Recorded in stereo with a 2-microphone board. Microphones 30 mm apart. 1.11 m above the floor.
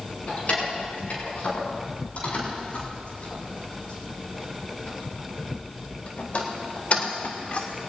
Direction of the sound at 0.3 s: 50° left (ahead or behind).